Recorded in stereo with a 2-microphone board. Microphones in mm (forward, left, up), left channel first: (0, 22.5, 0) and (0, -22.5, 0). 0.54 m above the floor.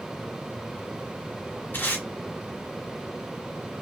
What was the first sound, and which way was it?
Tape being pulled, 45° left (ahead or behind).